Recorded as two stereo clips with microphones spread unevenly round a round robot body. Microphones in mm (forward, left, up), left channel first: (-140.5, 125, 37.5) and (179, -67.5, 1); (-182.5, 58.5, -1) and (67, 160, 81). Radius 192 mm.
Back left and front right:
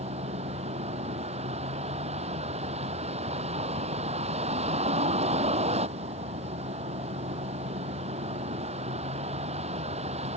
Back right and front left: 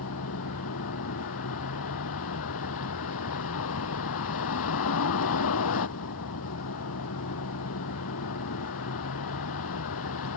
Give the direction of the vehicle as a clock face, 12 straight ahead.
4 o'clock.